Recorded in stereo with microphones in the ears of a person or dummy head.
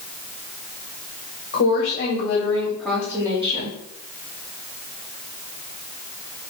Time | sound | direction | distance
1.5 | a woman speaking | 45° left (ahead or behind) | 1.1 m